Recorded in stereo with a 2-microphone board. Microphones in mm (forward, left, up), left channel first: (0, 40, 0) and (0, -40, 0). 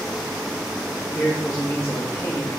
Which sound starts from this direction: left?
A man speaking, at 1.1 s.